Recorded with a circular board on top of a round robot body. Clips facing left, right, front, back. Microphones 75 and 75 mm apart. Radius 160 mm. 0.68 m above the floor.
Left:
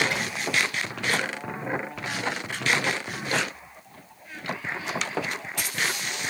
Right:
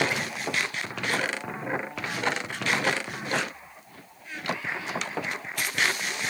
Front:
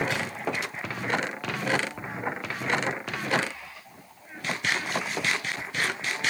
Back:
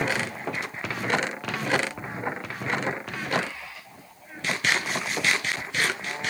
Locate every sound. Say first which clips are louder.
0.1 s a drawer: left 1 dB, back 2 dB; 5° right, 5.5 m